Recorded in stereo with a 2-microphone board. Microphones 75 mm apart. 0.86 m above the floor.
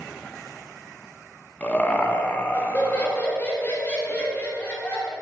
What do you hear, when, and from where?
1.6 s laughter: 20° left (ahead or behind), 0.7 m